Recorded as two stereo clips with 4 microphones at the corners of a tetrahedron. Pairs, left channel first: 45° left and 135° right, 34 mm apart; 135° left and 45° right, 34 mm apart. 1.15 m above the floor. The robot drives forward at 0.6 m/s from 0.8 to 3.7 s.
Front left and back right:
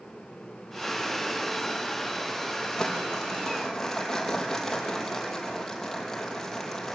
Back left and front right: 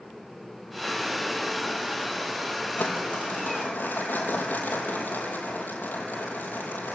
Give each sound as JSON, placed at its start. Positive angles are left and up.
{"t": 2.8, "sound": "crumpling", "azimuth_deg": 120, "distance_m": 5.0}